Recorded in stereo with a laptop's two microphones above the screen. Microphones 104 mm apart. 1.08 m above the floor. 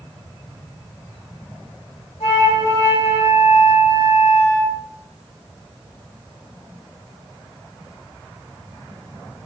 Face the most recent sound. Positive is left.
turn(degrees=80)